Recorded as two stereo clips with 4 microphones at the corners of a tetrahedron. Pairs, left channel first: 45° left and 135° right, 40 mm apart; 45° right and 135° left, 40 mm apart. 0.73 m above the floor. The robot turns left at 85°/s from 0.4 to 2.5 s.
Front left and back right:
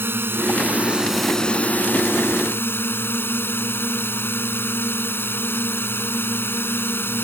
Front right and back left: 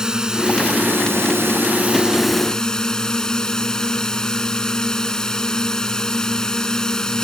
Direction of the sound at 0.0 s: 155° right.